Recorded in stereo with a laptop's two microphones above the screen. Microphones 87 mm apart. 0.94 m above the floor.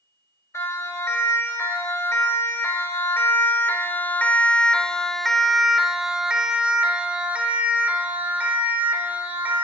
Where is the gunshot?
No gunshot in this recording.